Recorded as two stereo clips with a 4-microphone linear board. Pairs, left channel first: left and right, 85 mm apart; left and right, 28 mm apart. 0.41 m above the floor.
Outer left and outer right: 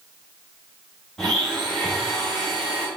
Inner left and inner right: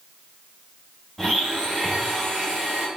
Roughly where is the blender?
Centre.